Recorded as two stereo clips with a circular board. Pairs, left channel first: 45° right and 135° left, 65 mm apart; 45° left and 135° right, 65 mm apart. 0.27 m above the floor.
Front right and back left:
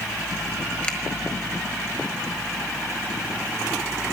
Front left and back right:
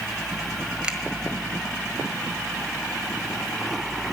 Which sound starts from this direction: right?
A finger snap, at 0.8 s.